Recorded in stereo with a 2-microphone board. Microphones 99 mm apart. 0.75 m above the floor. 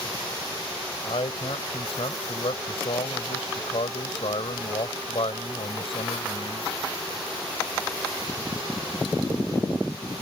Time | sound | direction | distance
1.0 | a man speaking | 70° left (ahead or behind) | ?